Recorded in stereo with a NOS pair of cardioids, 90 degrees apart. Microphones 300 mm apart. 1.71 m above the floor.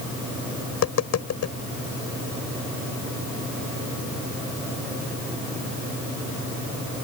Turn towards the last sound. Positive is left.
turn(degrees=60)